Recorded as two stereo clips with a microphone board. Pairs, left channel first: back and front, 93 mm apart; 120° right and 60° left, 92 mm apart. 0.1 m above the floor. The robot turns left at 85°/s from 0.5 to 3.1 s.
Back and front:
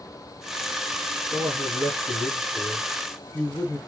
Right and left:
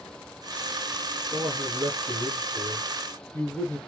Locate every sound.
1.3 s a man speaking: 25° left, 1.9 m; by 3.8 s 130° right, 1.9 m